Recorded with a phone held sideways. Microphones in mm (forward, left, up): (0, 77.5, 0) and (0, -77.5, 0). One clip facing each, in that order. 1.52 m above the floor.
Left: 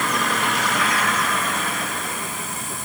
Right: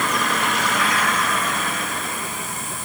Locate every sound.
Only background noise.